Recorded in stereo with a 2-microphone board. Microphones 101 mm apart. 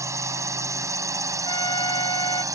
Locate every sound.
0.0 s a drone: 30° right (ahead or behind); by 2.5 s 35° right (ahead or behind)
1.4 s a trumpet: 50° left (ahead or behind)